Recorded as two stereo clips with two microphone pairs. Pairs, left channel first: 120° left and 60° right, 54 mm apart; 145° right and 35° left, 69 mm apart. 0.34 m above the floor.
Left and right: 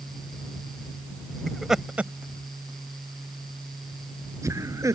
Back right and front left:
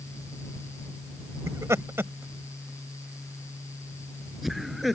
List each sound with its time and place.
1.5 s laughter: 40° left; by 5.0 s 55° right